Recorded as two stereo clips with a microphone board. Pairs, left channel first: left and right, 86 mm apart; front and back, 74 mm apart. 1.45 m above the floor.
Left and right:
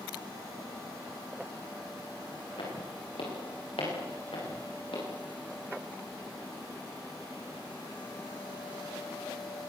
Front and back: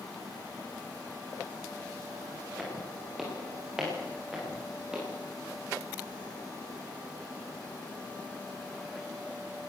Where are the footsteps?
90° left, 9.5 m; by 5.0 s 100° left, 12.5 m.